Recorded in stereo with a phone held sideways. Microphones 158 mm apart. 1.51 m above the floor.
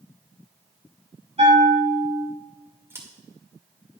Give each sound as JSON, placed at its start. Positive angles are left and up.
{"t": 1.4, "sound": "a bell", "side_deg": -40, "distance_m": 3.0}
{"t": 2.9, "sound": "scissors", "side_deg": -15, "distance_m": 2.0}